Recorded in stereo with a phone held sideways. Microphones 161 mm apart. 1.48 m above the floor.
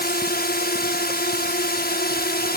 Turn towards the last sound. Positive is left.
turn(degrees=80)